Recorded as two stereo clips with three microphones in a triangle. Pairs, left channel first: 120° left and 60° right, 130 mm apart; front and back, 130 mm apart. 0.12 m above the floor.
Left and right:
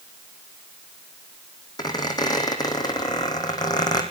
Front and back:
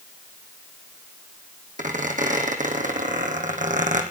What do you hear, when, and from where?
1.8 s a squeak: straight behind, 2.5 m